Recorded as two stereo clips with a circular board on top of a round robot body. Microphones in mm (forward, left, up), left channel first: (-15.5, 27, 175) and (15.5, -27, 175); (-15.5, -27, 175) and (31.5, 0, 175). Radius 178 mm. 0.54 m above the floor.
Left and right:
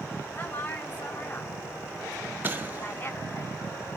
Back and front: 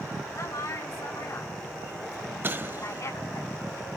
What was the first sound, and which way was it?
A woman speaking, straight behind.